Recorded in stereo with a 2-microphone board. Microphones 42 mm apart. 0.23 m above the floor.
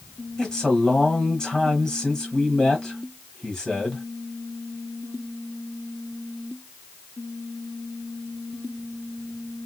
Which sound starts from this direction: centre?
A man speaking, at 0.4 s.